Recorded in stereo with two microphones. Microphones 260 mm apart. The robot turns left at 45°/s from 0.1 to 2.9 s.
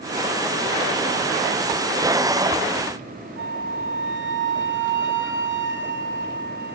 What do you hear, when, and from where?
3.4 s a flute: 45° right (ahead or behind), 1.0 m